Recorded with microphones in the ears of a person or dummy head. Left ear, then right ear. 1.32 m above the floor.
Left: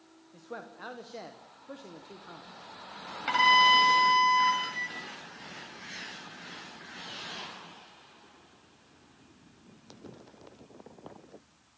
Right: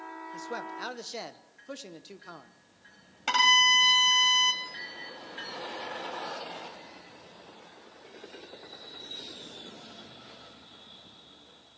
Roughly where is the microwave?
Left.